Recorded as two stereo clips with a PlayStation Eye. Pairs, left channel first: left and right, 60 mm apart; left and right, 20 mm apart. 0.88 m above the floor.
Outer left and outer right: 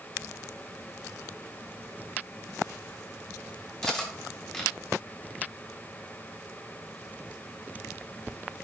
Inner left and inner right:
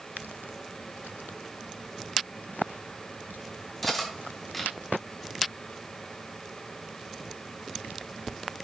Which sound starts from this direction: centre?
Cutlery clinking, at 3.8 s.